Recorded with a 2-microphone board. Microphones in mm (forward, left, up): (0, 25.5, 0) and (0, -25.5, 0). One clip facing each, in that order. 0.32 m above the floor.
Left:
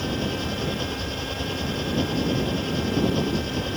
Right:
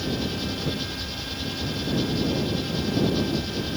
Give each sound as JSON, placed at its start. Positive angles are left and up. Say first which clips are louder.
{"t": 0.0, "sound": "an engine running", "louder": "left 1 dB", "side_deg": 40}